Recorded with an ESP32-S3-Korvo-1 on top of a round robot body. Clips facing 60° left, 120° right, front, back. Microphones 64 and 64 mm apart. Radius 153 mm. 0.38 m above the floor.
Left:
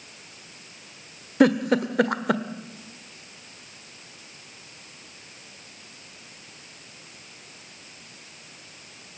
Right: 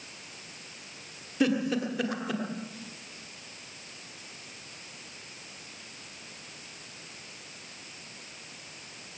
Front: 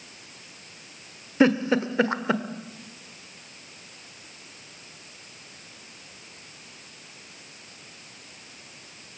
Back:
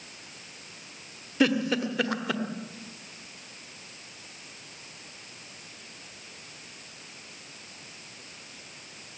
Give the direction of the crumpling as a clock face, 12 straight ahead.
No crumpling in this recording.